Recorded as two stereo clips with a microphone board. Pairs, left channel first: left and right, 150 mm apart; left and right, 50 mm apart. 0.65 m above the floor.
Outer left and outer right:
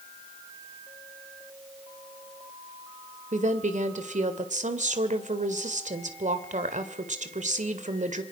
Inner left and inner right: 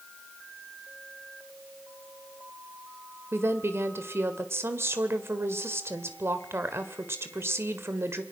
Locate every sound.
3.3 s a woman speaking: 60° right (ahead or behind), 2 m